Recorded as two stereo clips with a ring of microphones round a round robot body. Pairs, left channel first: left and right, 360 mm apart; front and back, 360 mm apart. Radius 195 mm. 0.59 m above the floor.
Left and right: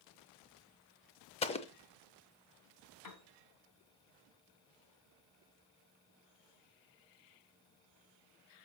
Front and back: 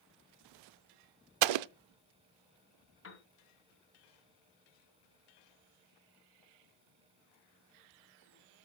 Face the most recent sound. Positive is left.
turn(degrees=55)